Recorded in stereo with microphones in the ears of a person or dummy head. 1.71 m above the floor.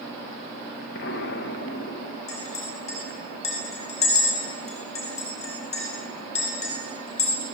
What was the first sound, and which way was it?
An explosion, 70° left (ahead or behind).